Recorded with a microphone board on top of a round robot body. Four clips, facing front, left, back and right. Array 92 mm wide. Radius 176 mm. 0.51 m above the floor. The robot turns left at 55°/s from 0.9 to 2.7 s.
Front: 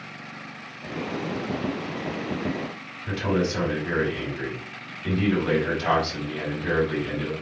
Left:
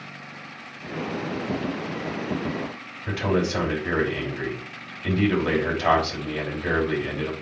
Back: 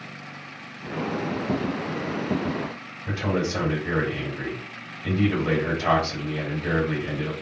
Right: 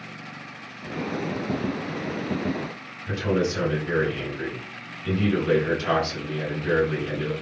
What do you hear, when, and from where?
3.1 s a man speaking: 95° left, 5 m